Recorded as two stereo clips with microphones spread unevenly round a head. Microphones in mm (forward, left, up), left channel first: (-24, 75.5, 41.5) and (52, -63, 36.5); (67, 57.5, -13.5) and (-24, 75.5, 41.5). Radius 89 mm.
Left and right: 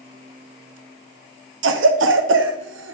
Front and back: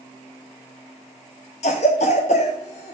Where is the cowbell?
I don't hear a cowbell.